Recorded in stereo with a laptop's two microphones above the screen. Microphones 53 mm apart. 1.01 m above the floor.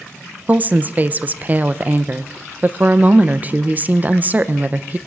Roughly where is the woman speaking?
Right.